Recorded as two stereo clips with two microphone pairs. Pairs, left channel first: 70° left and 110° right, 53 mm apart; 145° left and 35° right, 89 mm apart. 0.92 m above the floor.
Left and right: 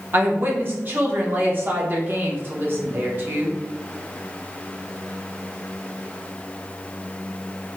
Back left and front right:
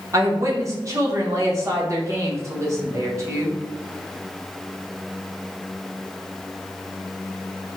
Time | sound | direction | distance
0.1 | a woman speaking | 75° right | 0.8 m